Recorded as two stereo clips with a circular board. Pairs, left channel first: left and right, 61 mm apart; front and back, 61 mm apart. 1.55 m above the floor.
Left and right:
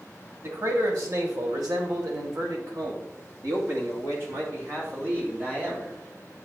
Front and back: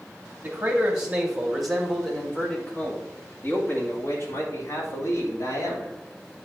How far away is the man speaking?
About 2.5 m.